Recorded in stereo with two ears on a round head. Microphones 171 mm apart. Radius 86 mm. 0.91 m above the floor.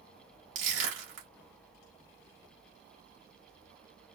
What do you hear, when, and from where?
0.6 s crushing: 75° right (ahead or behind), 1.8 m